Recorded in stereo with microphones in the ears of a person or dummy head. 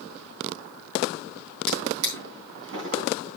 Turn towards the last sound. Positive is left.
turn(degrees=-70)  # may be behind; listen again after turning